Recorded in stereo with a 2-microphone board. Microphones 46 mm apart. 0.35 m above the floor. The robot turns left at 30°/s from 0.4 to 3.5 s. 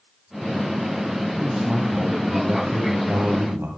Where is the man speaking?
Straight ahead, 2.5 m; by 3.7 s 65° right, 2.5 m.